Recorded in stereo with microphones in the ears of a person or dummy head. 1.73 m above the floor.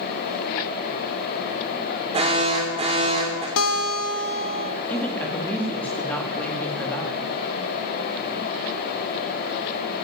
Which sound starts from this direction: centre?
A woman speaking, at 4.9 s.